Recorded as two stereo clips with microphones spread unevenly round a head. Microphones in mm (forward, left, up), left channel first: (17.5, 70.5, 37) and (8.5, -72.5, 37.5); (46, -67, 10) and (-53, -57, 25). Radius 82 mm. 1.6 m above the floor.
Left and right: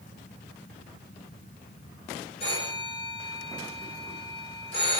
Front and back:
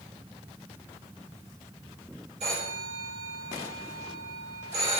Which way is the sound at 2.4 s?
140° left.